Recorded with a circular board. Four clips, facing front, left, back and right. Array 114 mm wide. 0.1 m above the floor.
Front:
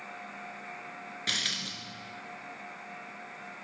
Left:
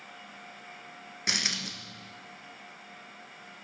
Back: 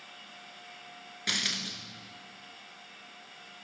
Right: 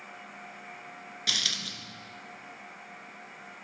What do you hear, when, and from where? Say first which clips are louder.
1.3 s a dropped coin: left 4 dB, back 3 dB; 95° left, 0.5 m